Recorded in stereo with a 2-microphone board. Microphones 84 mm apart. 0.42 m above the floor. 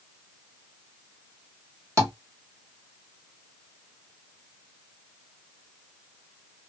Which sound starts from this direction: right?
Tapping, at 2.0 s.